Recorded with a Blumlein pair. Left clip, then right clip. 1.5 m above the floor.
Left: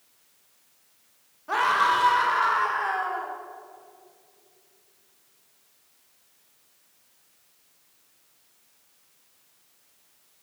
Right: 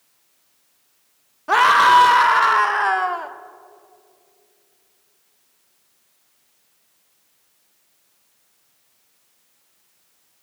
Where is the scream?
30° right, 0.6 m.